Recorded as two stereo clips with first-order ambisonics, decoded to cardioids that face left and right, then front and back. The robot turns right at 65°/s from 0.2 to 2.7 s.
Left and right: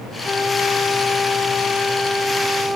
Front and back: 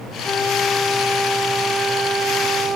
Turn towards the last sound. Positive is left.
turn(degrees=-155)